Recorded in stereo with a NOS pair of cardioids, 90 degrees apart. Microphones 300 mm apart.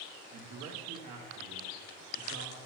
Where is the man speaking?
55° right, 1.2 m; by 2.6 s 75° right, 2.5 m.